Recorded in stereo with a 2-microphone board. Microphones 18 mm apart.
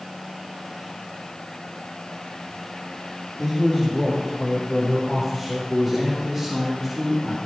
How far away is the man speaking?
About 5.5 m.